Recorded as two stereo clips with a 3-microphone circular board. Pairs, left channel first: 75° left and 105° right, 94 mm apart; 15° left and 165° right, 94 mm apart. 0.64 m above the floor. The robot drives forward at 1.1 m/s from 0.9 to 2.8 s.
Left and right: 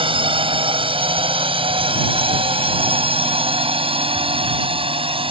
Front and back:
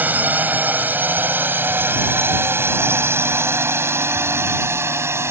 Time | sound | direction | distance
0.0 | a drone | 95° right | ?